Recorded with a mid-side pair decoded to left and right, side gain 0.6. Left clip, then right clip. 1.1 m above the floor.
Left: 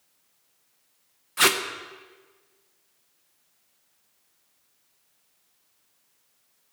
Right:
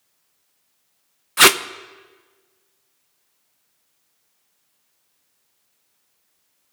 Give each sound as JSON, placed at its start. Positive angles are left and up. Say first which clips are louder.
{"t": 1.4, "sound": "tape being pulled", "louder": "right 8 dB", "azimuth_deg": -40, "distance_m": 0.5}